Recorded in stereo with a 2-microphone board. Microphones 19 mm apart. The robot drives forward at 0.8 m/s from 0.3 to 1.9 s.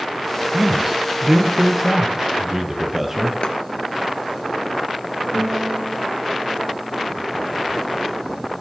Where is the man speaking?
30° right (ahead or behind), 1.8 m; by 3.3 s 20° right (ahead or behind), 2.5 m.